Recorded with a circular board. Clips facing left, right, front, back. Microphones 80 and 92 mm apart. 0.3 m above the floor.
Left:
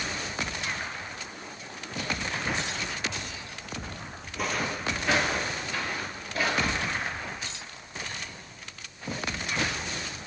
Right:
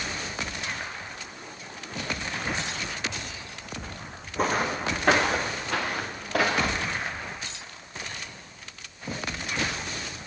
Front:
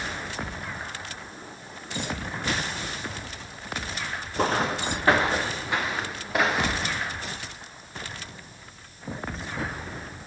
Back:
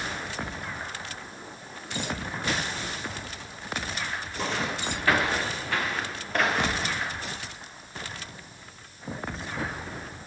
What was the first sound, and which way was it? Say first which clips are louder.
Footsteps: right 5 dB, front 7 dB; 35° right.